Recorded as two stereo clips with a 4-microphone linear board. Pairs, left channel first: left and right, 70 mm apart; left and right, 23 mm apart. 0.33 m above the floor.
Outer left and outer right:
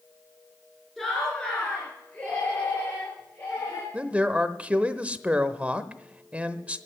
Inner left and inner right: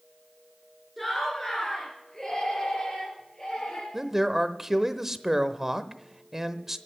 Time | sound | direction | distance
1.0 | laughter | 5° left (ahead or behind) | 3.5 m
3.9 | a man speaking | 20° right (ahead or behind) | 0.8 m